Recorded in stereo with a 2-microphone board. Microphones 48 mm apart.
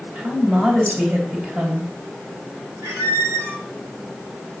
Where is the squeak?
80° right, 1.5 m.